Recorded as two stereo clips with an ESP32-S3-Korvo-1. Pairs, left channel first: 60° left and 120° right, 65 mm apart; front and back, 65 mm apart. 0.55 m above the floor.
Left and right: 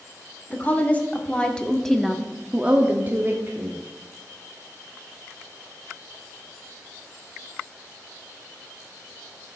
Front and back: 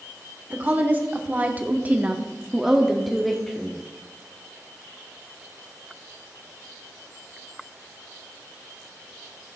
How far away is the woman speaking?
About 1.4 m.